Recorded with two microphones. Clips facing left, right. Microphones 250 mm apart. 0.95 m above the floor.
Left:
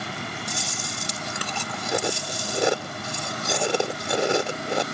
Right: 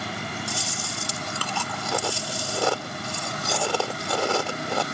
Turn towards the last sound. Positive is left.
turn(degrees=20)  # may be behind; listen again after turning